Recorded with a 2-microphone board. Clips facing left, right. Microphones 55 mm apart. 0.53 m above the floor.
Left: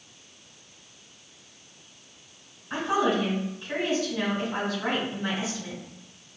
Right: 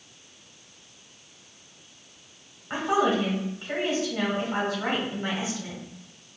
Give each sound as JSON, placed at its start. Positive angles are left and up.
{"t": 2.7, "sound": "a woman speaking", "side_deg": -40, "distance_m": 1.9}